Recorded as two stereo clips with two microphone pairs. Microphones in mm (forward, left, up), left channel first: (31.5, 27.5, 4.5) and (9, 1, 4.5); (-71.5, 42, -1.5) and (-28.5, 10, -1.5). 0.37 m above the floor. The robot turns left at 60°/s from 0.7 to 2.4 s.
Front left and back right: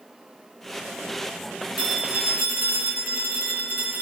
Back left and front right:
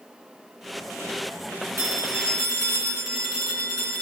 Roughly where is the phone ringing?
Right.